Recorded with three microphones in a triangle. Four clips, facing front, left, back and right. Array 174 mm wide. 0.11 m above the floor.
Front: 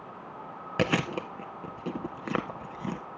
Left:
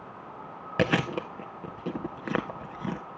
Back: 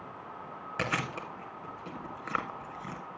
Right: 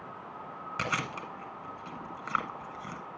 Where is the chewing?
55° left, 1.7 m.